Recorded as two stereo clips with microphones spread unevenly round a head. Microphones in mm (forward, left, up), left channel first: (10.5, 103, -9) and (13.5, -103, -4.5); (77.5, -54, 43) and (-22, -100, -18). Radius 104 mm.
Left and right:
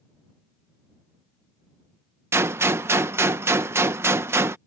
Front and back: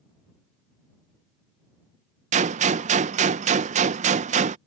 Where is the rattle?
I don't hear a rattle.